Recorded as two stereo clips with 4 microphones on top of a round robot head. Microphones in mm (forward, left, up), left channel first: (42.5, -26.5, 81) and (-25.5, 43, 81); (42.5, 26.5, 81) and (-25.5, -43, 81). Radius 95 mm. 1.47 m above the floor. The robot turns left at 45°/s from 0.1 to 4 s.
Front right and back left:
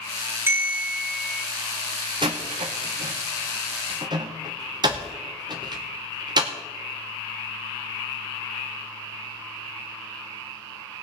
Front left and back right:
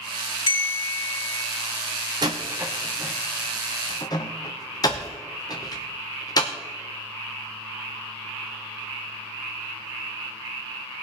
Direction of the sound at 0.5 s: 70° left.